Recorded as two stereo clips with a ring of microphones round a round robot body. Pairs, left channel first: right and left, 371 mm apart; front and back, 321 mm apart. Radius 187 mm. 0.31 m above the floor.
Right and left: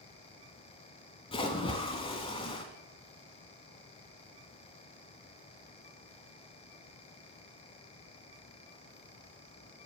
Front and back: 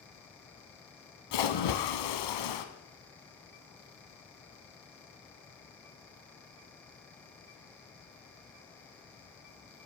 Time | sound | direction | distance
1.3 | a splash | 15° right | 0.7 m